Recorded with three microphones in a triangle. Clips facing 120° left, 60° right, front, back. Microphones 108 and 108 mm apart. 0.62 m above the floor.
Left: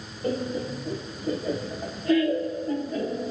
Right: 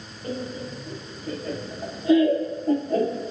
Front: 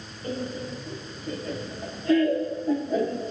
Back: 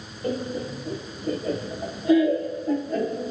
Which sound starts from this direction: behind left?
Laughter, at 0.2 s.